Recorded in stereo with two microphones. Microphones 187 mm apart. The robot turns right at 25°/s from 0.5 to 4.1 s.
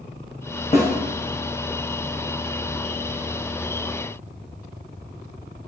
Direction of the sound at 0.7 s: 35° left (ahead or behind).